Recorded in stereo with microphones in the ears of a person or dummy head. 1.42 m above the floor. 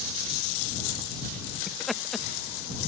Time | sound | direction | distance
1.7 | laughter | centre (ahead or behind) | ?